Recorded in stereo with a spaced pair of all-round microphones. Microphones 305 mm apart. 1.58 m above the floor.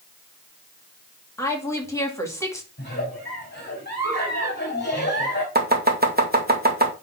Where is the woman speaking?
10° left (ahead or behind), 2.5 m.